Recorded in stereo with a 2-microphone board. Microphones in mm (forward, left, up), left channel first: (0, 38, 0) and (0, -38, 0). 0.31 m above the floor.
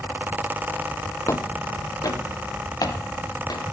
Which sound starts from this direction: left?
Footsteps, at 1.3 s.